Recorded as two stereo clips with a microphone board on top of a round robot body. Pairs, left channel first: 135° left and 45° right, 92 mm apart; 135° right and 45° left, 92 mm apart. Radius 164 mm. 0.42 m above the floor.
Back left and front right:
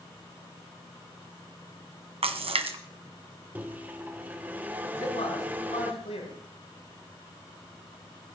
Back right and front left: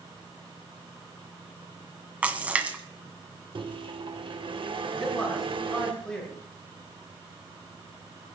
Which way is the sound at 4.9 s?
145° left.